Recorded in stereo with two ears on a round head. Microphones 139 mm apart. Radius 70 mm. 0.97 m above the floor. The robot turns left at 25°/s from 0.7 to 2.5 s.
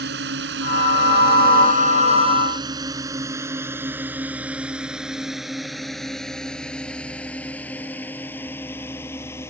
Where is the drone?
75° right (ahead or behind); by 9.5 s 15° left (ahead or behind).